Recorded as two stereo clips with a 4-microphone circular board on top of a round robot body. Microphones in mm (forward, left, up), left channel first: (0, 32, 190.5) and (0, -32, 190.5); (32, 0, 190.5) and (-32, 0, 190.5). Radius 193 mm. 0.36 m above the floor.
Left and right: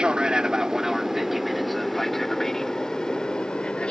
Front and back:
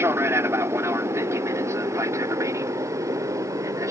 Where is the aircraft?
160° right; by 3.9 s 160° left.